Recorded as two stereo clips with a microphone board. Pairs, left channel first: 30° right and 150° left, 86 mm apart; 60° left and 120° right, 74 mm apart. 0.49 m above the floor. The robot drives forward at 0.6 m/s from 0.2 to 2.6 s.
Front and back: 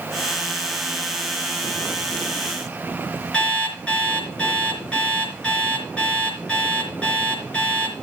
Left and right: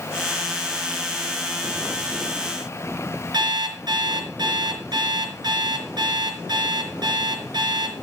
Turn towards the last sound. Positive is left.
turn(degrees=-105)